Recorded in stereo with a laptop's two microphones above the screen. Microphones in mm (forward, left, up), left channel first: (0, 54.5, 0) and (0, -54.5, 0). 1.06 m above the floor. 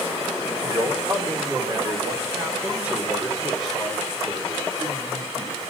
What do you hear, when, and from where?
0.6 s a man speaking: 50° right (ahead or behind), 2 m; by 5.6 s 30° left (ahead or behind), 2 m